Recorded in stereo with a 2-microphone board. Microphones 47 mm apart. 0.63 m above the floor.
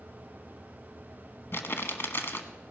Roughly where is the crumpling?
Left.